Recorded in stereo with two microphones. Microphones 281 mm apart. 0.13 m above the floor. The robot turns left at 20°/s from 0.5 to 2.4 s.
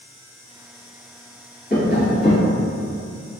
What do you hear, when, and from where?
1.7 s tapping: 25° left (ahead or behind), 1.9 m; by 2.5 s 20° left (ahead or behind), 1.9 m